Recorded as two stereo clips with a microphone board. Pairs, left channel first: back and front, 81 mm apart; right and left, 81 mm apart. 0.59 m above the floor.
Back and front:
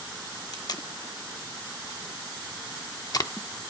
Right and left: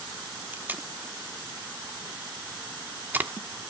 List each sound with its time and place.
0.5 s tape being pulled: 155° left, 0.7 m